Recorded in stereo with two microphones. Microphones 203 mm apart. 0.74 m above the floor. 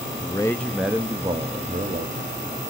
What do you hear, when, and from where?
0.2 s a man speaking: 25° left (ahead or behind), 0.8 m; by 2.3 s 50° right (ahead or behind), 1.4 m